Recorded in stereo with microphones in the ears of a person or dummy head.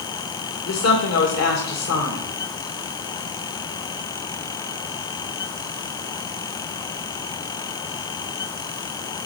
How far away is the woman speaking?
About 2 m.